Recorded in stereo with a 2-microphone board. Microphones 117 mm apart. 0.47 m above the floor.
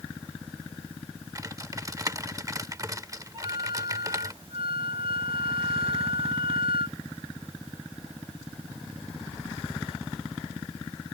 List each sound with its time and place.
1.4 s typing on a keyboard: 30° right (ahead or behind)
3.3 s a flute: 50° right (ahead or behind)